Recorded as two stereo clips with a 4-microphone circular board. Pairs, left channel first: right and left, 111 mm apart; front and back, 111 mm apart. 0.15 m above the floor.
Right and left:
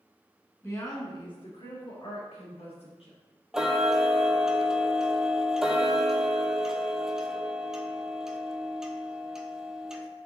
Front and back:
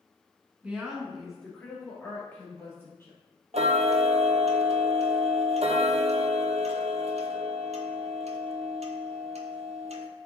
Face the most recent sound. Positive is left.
turn(degrees=175)